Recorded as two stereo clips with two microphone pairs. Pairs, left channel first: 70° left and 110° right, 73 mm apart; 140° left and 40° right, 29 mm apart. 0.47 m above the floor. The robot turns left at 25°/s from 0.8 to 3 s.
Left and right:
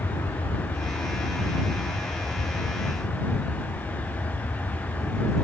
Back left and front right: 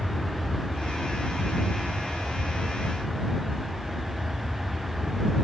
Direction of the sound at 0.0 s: 80° left.